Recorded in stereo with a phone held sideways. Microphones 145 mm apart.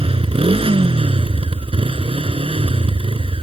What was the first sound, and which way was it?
A motorcycle, 40° right (ahead or behind).